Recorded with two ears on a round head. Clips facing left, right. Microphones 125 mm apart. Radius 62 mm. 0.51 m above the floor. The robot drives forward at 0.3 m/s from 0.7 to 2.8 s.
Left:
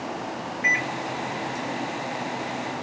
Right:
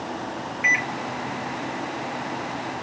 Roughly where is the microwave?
Right.